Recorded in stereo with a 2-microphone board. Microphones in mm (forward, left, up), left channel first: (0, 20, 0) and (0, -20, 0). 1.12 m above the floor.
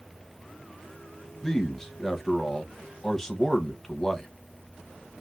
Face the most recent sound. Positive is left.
turn(degrees=10)  # may be behind; listen again after turning